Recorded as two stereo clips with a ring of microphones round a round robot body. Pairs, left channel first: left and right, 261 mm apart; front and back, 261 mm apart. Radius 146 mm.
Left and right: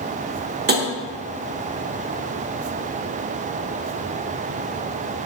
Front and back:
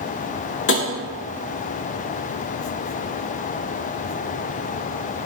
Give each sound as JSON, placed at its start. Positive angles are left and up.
{"t": 0.7, "sound": "tapping", "azimuth_deg": -40, "distance_m": 0.6}